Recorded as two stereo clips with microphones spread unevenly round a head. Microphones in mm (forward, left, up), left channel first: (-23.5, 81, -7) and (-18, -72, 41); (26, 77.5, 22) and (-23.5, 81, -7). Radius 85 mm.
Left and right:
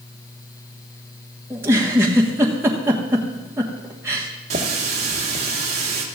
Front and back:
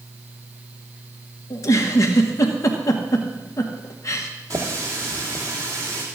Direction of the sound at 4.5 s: 130° right.